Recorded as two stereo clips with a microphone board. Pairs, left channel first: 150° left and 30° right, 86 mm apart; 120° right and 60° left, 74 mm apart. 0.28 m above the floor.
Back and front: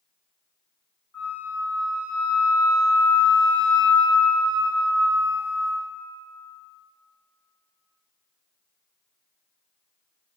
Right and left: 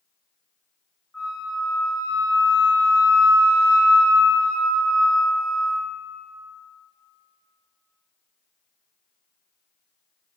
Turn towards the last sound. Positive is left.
turn(degrees=175)